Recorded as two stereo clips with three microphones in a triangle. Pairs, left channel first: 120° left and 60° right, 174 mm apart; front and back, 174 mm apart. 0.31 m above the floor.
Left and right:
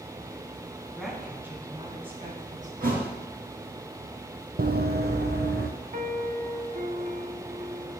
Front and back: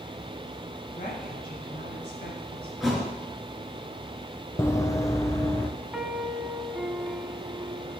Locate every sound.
0.9 s a woman speaking: 35° left, 2.5 m; by 2.7 s 25° right, 2.5 m
2.8 s a thud: 90° right, 2.5 m
4.6 s running footsteps: 75° right, 0.7 m; by 5.7 s 70° right, 1.8 m
5.9 s a piano: 95° right, 0.8 m